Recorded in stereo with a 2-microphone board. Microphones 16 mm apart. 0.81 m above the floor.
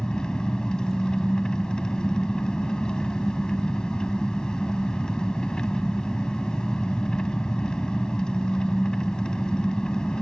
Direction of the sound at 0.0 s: 55° left (ahead or behind).